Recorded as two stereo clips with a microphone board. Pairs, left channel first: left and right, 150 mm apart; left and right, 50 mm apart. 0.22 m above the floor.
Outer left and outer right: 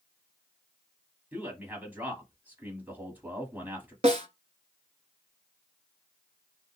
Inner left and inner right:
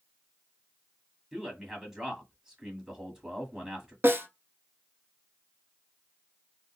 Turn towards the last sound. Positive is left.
turn(degrees=-50)  # may be behind; listen again after turning